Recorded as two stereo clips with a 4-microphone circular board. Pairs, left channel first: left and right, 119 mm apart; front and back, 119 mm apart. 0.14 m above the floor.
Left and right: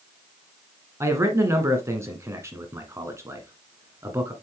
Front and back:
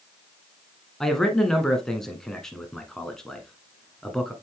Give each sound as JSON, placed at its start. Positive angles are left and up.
{"t": 1.0, "sound": "a man speaking", "azimuth_deg": -80, "distance_m": 1.2}